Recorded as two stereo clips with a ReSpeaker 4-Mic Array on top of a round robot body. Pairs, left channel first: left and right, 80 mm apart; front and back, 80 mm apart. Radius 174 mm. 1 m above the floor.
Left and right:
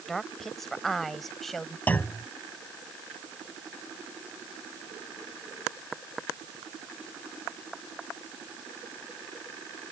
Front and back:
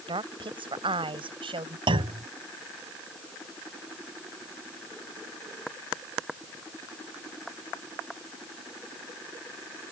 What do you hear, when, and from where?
0.1 s a woman speaking: 175° left; by 1.8 s straight behind
1.9 s a clunk: 160° left